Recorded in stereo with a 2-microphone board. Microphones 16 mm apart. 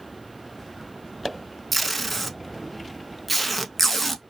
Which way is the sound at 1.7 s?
5° left (ahead or behind).